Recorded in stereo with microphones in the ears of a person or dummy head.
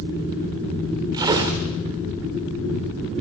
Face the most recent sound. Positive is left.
turn(degrees=-20)  # may be behind; listen again after turning